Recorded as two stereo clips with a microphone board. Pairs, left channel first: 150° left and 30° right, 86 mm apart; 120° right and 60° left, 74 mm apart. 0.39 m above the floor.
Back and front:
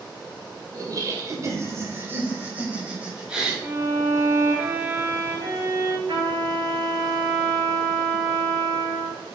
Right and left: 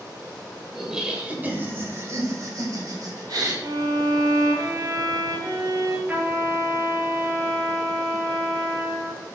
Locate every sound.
0.8 s laughter: 25° right, 1.6 m; by 3.5 s 50° left, 2.5 m
3.6 s a violin: 35° left, 1.3 m
6.1 s a trumpet: 5° right, 1.7 m